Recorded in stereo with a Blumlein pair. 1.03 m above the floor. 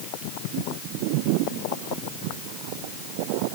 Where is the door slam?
I don't hear a door slam.